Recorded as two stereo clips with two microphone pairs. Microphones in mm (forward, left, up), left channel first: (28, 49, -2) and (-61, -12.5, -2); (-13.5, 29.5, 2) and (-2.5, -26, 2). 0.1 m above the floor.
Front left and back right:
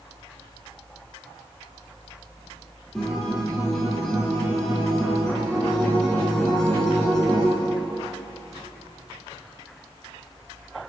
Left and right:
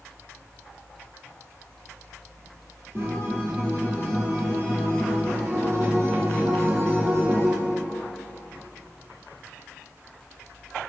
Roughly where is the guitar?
Ahead right.